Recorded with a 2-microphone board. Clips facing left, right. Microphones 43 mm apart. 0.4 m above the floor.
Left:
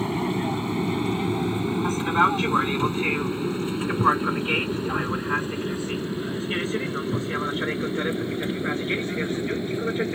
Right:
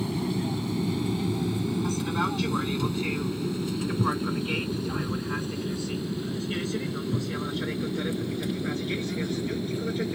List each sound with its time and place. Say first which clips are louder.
0.0 s an aircraft: left 4 dB; 35° left (ahead or behind); by 10.2 s 30° left (ahead or behind)